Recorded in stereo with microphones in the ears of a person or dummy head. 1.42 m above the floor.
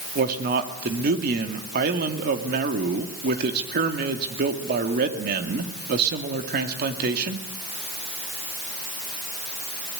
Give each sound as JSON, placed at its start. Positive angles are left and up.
{"t": 0.1, "sound": "a man speaking", "side_deg": -55, "distance_m": 2.5}